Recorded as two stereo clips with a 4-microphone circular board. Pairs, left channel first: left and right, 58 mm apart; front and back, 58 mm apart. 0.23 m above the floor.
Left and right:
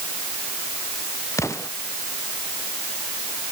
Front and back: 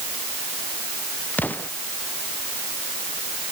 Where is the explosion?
60° left.